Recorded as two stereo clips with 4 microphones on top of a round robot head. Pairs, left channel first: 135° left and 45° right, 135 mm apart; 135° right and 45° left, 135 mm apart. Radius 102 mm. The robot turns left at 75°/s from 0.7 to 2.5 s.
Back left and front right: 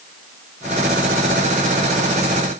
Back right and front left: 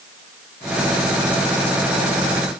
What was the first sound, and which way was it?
Only background noise.